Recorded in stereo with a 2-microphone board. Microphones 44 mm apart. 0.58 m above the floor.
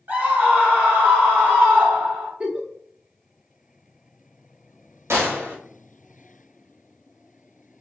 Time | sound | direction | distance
0.1 | a scream | 50° right (ahead or behind) | 1.7 m
2.4 | a giggle | 25° right (ahead or behind) | 0.8 m
5.1 | a gunshot | 75° right (ahead or behind) | 0.9 m